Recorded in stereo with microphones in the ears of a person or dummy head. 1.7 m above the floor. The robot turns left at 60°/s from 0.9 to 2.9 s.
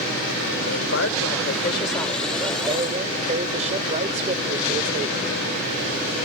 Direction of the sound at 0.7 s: 85° left.